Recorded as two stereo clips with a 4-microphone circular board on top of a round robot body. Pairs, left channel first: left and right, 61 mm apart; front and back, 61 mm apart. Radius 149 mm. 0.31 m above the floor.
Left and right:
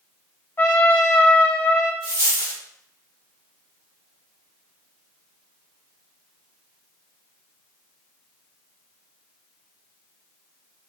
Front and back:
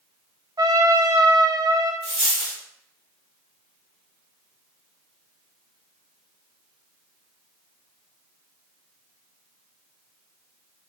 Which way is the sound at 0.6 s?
150° left.